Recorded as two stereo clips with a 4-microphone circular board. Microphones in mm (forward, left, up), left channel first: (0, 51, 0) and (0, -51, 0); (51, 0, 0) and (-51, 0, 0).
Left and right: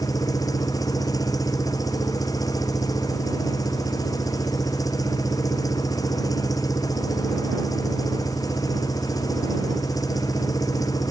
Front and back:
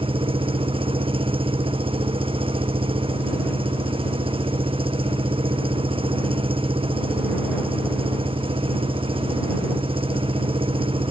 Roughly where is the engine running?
Behind left.